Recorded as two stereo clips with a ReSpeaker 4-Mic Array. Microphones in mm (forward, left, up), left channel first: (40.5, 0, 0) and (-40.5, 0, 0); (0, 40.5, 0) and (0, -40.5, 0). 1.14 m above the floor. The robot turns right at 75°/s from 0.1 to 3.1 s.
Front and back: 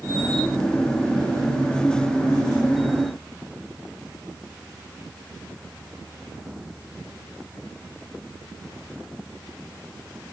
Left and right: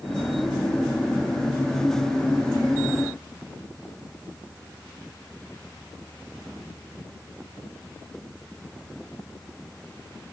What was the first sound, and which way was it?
Only background noise.